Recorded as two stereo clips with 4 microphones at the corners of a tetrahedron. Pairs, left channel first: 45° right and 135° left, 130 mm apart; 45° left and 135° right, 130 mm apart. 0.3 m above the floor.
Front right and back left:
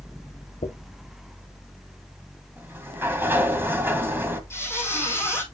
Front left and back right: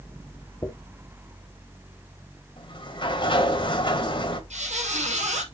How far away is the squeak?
About 3 m.